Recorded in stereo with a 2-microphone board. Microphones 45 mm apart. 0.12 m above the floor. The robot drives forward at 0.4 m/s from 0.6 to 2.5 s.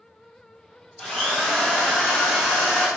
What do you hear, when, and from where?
1.0 s a drill: 15° left (ahead or behind), 1.2 m; by 2.9 s 10° left (ahead or behind), 1.8 m